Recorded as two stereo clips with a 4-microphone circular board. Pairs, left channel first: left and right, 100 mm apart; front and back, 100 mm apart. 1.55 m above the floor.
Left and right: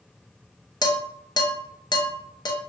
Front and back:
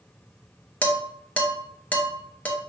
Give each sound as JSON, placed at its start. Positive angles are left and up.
{"t": 0.8, "sound": "dishes clattering", "azimuth_deg": 70, "distance_m": 0.9}